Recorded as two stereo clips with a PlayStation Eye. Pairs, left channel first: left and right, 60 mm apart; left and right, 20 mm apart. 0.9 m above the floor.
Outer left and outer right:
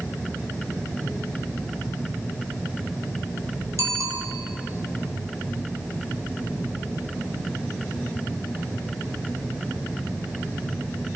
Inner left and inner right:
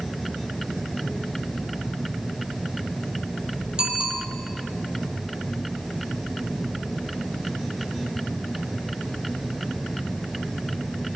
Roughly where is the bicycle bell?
Right.